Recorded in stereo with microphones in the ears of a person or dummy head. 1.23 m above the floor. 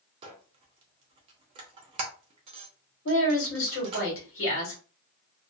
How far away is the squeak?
About 0.5 m.